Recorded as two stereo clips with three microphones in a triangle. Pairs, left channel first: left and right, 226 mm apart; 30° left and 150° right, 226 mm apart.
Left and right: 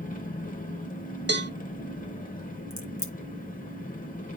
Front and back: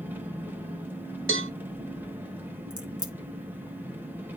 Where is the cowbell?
125° right, 0.7 m.